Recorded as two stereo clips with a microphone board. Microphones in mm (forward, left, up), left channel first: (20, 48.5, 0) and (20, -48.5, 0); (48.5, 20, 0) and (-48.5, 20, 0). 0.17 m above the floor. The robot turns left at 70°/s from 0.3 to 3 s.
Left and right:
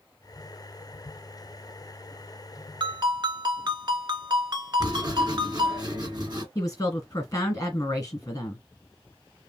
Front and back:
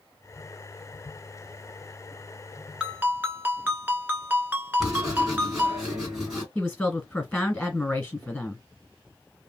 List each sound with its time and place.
2.8 s a ringtone: 100° right, 1.1 m; by 5.8 s 115° right, 1.1 m
4.8 s writing: 95° right, 2 m
6.5 s a woman speaking: 75° left, 1.6 m